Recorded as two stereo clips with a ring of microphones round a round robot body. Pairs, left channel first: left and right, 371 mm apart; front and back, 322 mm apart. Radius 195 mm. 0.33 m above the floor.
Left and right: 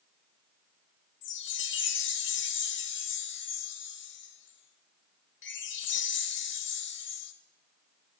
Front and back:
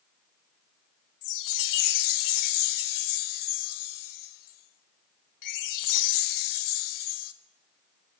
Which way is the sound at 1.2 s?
30° left.